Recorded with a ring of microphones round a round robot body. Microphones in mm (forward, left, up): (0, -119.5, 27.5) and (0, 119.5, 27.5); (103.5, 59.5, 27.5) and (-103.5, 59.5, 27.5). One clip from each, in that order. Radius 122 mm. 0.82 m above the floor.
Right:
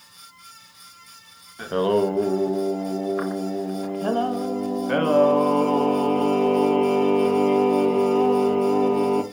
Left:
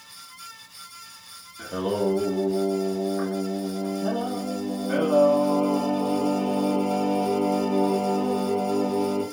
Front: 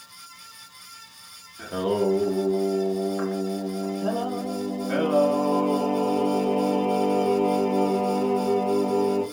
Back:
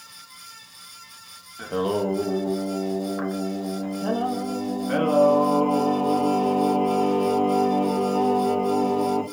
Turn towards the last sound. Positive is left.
turn(degrees=-115)